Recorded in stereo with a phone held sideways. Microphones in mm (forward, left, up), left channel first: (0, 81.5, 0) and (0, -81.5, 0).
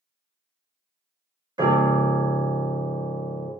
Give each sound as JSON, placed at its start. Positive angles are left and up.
{"t": 1.6, "sound": "a piano", "side_deg": -25, "distance_m": 0.7}